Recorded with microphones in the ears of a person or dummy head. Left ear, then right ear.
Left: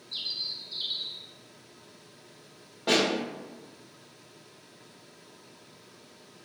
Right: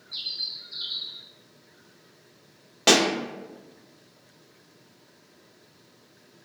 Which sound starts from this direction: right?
A pop, at 2.9 s.